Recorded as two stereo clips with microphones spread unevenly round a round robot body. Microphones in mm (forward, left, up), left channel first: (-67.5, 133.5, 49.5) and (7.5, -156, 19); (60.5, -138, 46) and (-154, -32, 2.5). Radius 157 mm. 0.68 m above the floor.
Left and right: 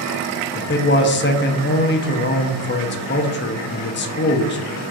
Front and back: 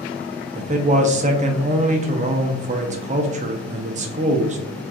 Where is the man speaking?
145° left, 0.6 m.